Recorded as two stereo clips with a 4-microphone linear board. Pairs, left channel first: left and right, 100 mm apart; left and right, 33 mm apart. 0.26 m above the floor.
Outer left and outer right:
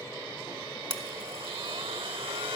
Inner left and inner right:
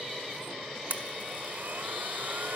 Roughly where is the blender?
Right.